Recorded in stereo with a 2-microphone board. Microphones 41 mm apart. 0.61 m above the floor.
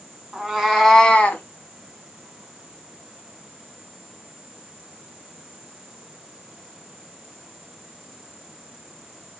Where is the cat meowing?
10° right (ahead or behind), 1.2 m; by 1.4 s 45° left (ahead or behind), 0.9 m.